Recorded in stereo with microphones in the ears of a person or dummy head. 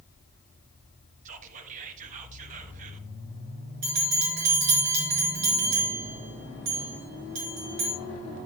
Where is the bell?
50° right (ahead or behind), 4 m.